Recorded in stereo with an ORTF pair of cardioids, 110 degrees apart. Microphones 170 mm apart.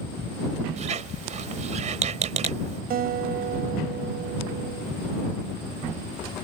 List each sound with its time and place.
0.8 s a squeak: 45° right
2.9 s a guitar: 65° right